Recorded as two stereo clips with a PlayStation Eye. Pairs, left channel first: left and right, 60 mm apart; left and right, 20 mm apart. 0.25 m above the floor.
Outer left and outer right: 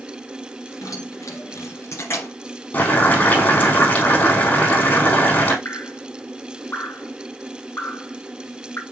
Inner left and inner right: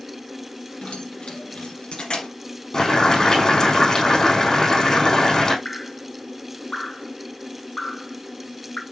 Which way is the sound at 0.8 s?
65° left (ahead or behind).